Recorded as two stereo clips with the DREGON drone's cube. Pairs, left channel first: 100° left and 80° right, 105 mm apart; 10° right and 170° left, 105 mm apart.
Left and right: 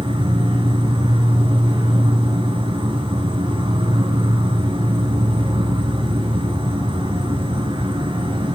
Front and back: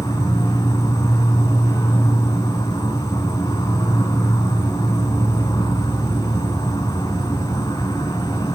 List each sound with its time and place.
0.0 s an insect: 60° right, 3.5 m